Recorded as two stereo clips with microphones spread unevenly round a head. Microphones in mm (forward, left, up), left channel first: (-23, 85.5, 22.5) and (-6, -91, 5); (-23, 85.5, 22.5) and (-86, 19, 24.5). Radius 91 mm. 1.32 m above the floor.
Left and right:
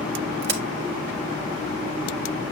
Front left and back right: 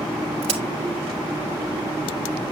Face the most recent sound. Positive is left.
turn(degrees=-115)